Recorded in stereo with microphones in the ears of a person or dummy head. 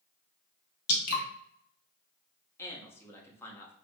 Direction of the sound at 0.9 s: 90° left.